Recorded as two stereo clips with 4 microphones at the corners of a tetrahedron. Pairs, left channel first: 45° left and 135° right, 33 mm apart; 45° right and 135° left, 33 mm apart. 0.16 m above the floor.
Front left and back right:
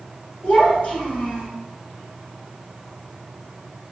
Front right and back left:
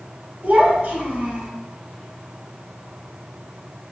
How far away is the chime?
I don't hear a chime.